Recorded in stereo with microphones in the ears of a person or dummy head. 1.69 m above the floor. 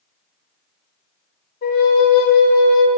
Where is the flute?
55° left (ahead or behind), 0.9 m.